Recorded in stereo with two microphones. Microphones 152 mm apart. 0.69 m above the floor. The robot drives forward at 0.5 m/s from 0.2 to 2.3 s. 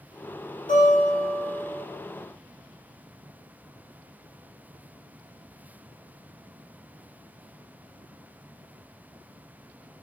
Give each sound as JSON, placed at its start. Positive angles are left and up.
{"t": 0.7, "sound": "a guitar", "side_deg": 60, "distance_m": 1.5}